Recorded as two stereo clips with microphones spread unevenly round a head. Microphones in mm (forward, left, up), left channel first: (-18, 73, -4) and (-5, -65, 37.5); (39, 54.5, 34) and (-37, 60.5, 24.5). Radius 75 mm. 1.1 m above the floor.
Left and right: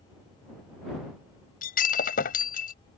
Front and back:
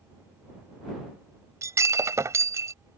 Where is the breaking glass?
125° left.